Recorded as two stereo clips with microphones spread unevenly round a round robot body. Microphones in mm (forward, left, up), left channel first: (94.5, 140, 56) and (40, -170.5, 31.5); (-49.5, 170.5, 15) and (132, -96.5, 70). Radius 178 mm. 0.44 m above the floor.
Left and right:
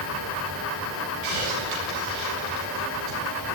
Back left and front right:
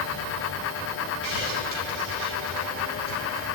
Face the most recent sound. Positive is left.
turn(degrees=-70)